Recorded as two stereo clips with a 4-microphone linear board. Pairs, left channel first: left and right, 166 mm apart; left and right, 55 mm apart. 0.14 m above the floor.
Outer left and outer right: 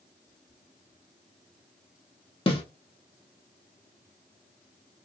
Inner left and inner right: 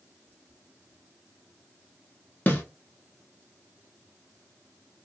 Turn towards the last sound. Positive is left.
turn(degrees=35)  # may be behind; listen again after turning